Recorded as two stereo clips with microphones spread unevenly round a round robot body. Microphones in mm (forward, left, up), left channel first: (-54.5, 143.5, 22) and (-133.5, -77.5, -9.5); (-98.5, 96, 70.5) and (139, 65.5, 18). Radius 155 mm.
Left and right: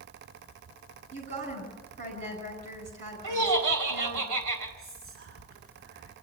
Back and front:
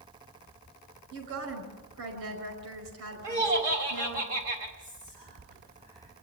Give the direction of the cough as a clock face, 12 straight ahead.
No cough in this recording.